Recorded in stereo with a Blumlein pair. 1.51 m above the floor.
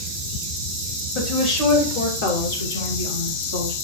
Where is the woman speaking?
35° left, 1.3 m; by 3.7 s 80° left, 2.0 m.